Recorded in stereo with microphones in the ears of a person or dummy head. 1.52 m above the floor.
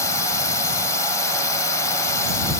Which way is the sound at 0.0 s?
15° left (ahead or behind).